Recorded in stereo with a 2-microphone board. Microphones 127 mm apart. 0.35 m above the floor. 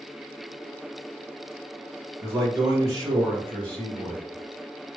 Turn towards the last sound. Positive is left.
turn(degrees=-45)  # may be behind; listen again after turning